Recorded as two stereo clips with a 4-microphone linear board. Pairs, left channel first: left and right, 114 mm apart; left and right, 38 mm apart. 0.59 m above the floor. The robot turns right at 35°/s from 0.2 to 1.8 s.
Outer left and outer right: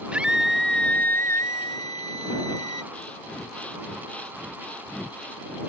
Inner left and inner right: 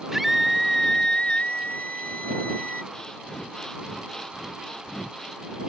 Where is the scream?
10° right; by 2.8 s 45° left.